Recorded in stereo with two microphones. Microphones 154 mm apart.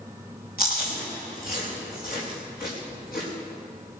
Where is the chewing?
70° left (ahead or behind), 6 m.